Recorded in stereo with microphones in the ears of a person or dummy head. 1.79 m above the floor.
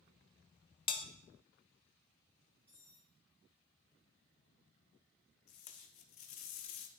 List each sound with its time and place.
0.9 s a bell: 25° left (ahead or behind), 0.5 m
2.7 s cutlery clinking: 10° right (ahead or behind), 4 m
5.5 s tape being pulled: 40° left (ahead or behind), 0.5 m